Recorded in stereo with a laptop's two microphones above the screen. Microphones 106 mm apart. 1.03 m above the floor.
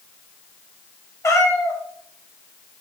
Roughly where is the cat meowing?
Left.